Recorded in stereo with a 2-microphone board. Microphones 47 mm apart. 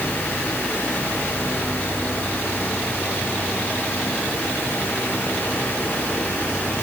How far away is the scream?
No scream in this recording.